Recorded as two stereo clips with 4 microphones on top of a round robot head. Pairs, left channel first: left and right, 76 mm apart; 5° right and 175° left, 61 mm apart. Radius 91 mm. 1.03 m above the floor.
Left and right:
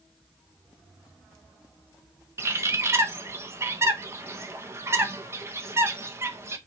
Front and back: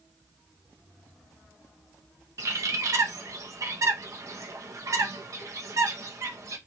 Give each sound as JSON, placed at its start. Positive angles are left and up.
{"t": 2.4, "sound": "a bird", "azimuth_deg": -145, "distance_m": 0.8}